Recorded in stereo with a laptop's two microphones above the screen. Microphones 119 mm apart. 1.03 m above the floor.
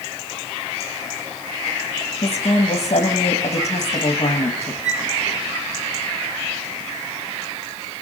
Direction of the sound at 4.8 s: 80° right.